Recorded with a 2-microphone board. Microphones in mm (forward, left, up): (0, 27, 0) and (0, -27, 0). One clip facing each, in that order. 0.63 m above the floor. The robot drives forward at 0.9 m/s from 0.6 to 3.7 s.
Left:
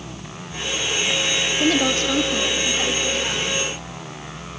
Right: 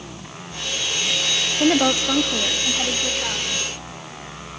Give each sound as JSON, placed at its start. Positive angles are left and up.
{"t": 1.6, "sound": "a woman speaking", "side_deg": -20, "distance_m": 0.7}